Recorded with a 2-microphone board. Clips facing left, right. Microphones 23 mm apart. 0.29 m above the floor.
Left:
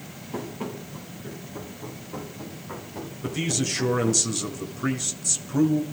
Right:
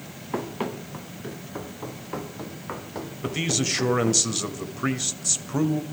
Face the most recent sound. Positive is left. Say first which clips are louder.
# right 1 dB
turn(degrees=-25)  # may be behind; listen again after turning